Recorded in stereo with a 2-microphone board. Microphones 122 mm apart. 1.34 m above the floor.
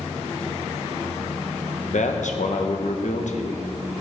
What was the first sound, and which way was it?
A man speaking, 80° left.